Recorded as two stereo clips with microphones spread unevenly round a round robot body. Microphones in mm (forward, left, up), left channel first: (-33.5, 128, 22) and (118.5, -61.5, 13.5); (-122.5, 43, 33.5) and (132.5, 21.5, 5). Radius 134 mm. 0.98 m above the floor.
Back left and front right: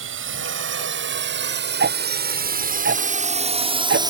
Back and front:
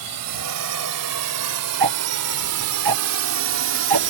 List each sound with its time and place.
0.0 s a drone: 20° right; by 4.1 s 20° left
1.8 s ticking: 5° right